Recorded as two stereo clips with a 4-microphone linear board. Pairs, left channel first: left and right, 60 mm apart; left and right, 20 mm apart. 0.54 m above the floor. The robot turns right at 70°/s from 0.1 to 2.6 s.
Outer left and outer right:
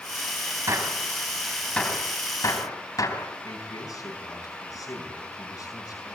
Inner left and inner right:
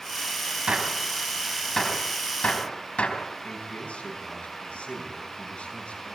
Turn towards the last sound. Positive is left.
turn(degrees=75)  # may be behind; listen again after turning